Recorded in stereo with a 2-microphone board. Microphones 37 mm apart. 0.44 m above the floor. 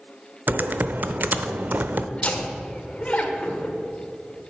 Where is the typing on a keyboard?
55° right (ahead or behind), 0.6 m.